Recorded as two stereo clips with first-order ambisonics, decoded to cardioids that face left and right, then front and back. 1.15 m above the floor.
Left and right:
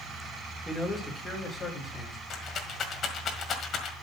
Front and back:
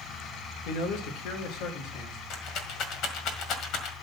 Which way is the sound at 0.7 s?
5° left.